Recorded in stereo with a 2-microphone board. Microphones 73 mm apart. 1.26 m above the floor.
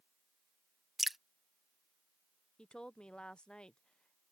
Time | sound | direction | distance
1.0 | dripping | 5° right (ahead or behind) | ?
2.6 | a woman speaking | 10° left (ahead or behind) | ?